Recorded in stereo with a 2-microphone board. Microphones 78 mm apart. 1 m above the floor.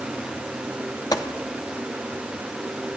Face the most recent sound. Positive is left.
turn(degrees=50)  # may be behind; listen again after turning